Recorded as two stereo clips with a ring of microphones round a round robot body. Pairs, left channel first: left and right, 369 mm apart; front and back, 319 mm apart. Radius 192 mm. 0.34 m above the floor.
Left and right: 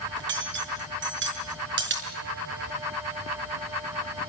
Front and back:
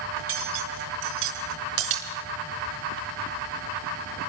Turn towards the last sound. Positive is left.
turn(degrees=-150)